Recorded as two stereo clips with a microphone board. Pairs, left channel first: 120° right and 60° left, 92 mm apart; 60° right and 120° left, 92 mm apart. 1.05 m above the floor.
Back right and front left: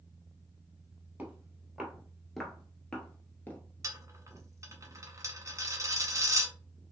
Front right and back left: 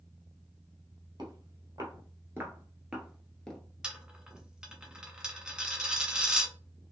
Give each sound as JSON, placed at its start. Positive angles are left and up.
{"t": 1.2, "sound": "footsteps", "azimuth_deg": 130, "distance_m": 1.5}
{"t": 3.8, "sound": "a dropped coin", "azimuth_deg": 45, "distance_m": 0.6}